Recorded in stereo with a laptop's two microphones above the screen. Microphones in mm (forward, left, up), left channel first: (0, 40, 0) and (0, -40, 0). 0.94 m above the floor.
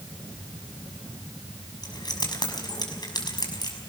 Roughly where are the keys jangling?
Left.